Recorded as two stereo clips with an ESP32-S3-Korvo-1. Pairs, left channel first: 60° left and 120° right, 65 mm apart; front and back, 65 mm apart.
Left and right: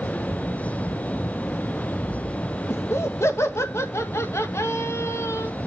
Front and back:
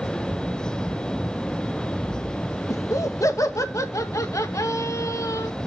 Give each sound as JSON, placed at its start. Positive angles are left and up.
{"t": 2.7, "sound": "laughter", "azimuth_deg": 25, "distance_m": 1.7}